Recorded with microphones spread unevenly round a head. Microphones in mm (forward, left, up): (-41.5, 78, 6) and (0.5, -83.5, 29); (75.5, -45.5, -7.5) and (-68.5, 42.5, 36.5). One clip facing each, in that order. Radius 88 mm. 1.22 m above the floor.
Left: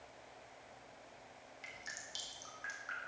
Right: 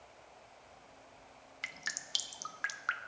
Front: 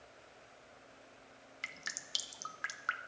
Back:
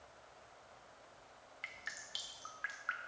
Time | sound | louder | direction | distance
1.6 | dripping | right 2 dB, front 3 dB | 50° right | 0.6 m